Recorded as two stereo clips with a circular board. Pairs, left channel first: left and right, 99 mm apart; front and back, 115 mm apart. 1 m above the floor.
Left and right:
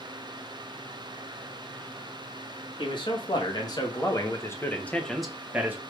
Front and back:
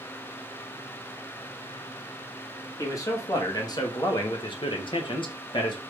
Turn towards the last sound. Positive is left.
turn(degrees=-25)